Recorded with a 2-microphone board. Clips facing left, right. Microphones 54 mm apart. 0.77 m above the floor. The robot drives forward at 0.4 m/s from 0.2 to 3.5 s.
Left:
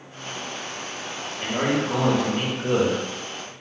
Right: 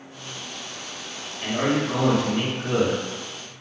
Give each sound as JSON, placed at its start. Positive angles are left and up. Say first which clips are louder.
{"t": 1.4, "sound": "a man speaking", "louder": "even", "side_deg": 30, "distance_m": 1.0}